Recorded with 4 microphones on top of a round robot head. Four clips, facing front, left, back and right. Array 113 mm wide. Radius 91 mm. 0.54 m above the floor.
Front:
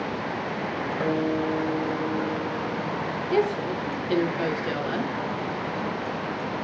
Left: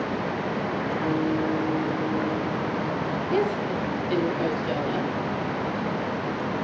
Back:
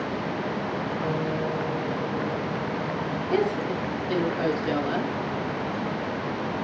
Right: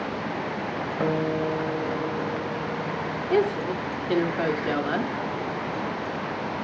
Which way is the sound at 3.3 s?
105° right.